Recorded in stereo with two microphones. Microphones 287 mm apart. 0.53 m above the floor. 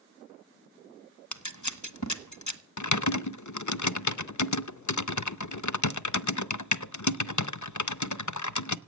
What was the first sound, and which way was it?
Scissors, 80° left.